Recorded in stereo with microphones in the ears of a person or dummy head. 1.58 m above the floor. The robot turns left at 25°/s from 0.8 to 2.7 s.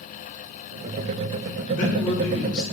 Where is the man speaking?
45° left (ahead or behind), 2.5 m; by 2.6 s 25° left (ahead or behind), 2.5 m.